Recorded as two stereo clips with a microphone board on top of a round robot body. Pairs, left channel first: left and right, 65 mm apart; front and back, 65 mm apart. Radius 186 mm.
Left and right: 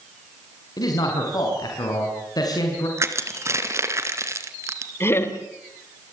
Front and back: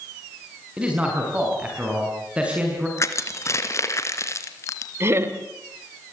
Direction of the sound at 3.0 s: 45° right.